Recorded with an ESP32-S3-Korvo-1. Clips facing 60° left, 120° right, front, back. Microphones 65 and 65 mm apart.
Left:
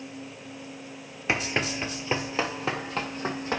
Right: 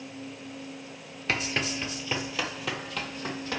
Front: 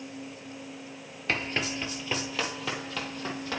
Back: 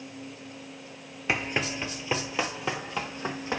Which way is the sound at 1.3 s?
115° left.